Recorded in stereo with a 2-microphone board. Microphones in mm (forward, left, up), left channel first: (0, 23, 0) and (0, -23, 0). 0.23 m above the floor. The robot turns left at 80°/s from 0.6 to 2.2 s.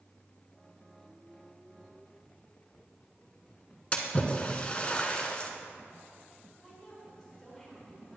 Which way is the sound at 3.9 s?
25° left (ahead or behind).